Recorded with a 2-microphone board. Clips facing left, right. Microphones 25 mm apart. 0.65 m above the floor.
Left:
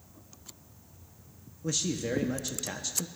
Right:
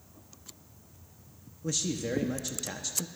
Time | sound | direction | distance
1.6 | a man speaking | 5° left (ahead or behind) | 0.5 m